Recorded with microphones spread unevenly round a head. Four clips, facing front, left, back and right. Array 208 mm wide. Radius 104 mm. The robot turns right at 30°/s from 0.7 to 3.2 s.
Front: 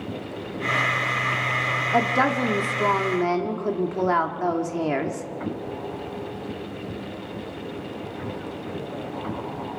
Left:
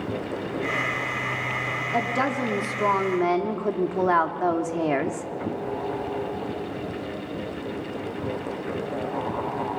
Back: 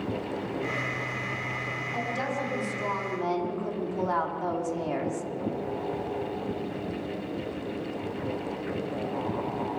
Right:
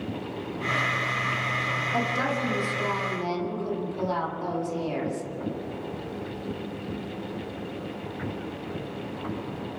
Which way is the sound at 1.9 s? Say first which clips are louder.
Left 4 dB, front 10 dB; 10° left.